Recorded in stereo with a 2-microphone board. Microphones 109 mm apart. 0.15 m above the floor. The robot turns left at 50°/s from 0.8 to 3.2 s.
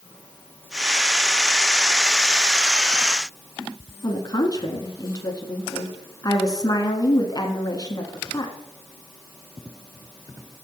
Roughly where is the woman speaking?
Left.